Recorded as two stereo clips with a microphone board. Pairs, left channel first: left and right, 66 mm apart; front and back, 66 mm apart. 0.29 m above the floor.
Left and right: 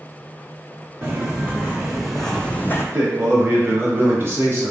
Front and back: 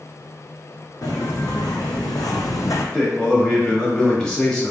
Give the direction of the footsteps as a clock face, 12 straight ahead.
1 o'clock.